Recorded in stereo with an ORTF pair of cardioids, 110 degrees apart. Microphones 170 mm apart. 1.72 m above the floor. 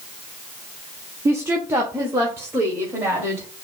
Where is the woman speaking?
15° right, 0.6 m.